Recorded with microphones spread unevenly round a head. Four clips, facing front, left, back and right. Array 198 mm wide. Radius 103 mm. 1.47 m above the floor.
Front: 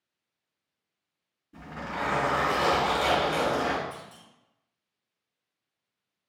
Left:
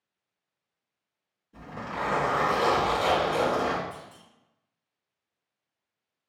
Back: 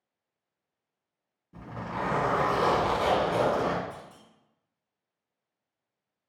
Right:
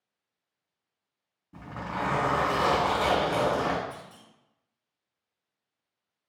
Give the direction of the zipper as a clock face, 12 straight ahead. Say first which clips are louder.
Right 1 dB, even; 4 o'clock.